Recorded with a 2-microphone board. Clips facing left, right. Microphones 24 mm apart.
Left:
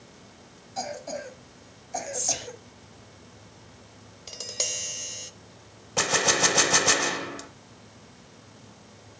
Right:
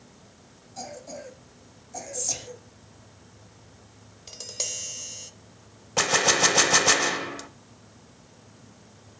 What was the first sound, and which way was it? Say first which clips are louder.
A cough: left 5 dB; 40° left (ahead or behind).